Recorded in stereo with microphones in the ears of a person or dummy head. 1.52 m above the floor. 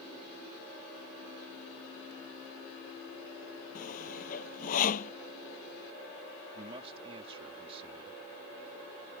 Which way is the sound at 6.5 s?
30° right (ahead or behind).